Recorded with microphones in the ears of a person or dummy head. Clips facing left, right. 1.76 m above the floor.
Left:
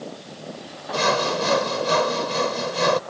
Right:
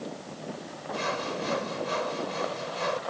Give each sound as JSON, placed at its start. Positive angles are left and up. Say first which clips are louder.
{"t": 0.9, "sound": "sawing", "louder": "left 10 dB", "side_deg": 75}